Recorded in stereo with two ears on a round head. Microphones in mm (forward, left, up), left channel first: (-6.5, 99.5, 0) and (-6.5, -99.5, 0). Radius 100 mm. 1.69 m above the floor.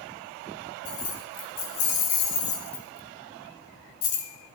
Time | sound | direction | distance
0.8 | keys jangling | 75° left (ahead or behind) | 4.5 m